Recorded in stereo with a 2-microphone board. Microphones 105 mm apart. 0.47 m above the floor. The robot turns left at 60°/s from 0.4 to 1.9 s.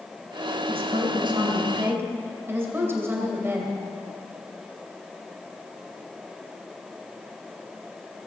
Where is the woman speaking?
80° right, 2.5 m; by 3.7 s 155° right, 2.5 m.